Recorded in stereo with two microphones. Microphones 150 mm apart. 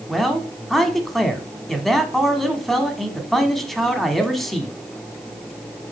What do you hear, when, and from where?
0.1 s a man speaking: centre (ahead or behind), 1.0 m